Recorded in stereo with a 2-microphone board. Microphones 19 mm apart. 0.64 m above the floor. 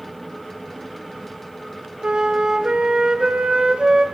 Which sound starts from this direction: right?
A flute, at 2.0 s.